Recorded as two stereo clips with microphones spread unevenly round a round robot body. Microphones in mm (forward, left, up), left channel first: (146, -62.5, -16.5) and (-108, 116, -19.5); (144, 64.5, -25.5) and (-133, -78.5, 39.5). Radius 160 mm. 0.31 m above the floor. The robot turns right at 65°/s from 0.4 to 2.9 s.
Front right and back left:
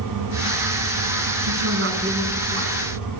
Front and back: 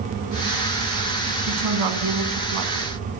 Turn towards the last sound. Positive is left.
turn(degrees=-95)